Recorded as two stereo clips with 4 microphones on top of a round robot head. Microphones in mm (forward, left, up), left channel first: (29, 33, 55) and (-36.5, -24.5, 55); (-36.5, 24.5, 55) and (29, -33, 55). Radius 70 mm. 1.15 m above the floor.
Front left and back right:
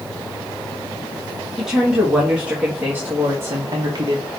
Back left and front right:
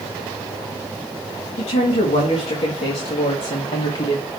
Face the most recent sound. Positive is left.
turn(degrees=180)